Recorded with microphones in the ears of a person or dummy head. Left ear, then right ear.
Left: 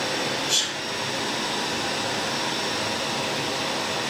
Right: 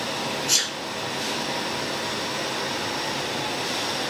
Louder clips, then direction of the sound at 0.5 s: Right 2 dB; 55° right (ahead or behind).